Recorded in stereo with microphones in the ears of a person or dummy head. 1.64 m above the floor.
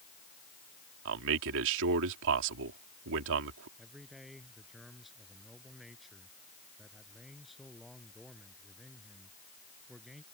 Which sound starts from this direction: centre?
A man speaking, at 3.8 s.